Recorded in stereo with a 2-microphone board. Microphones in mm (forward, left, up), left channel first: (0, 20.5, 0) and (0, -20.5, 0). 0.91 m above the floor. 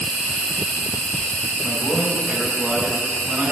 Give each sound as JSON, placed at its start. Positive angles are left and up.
{"t": 0.0, "sound": "an insect", "side_deg": 45, "distance_m": 6.5}
{"t": 1.6, "sound": "a man speaking", "side_deg": -35, "distance_m": 4.0}